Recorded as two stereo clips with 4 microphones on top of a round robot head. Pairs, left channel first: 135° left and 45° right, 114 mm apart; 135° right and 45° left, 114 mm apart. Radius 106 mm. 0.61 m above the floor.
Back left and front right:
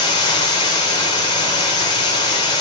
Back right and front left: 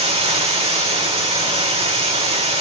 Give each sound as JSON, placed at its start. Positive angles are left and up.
{"t": 0.0, "sound": "running water", "azimuth_deg": 80, "distance_m": 4.0}